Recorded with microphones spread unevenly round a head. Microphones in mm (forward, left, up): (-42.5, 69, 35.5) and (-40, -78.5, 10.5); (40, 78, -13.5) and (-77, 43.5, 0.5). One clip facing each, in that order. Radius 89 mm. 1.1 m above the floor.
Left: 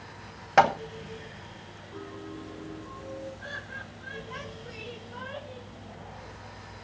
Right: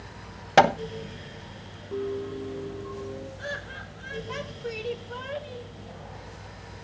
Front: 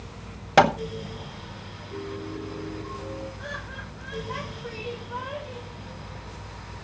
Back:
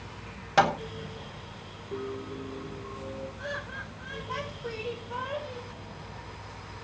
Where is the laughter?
75° right, 4.5 m.